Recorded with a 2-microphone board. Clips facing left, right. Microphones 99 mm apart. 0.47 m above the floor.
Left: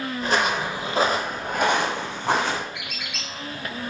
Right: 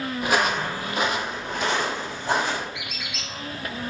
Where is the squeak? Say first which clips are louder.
Even; 60° left (ahead or behind), 1.4 m.